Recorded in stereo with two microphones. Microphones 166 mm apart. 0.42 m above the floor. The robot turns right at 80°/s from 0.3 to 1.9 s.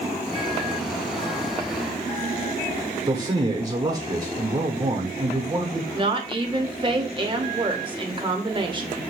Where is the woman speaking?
30° right (ahead or behind), 0.9 m.